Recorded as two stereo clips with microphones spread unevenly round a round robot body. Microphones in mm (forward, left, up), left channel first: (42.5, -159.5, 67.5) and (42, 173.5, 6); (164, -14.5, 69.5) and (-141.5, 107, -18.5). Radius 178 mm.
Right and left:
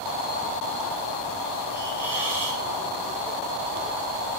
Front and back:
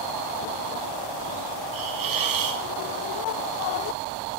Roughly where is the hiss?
Behind.